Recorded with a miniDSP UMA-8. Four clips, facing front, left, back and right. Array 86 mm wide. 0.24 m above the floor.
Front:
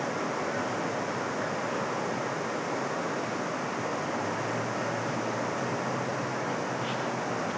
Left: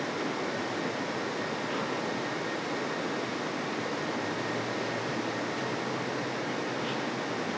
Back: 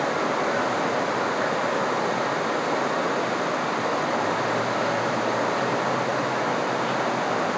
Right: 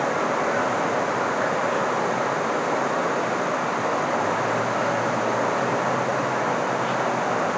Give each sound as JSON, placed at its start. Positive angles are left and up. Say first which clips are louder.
{"t": 0.0, "sound": "running water", "louder": "right 10 dB, back 7 dB", "azimuth_deg": -120}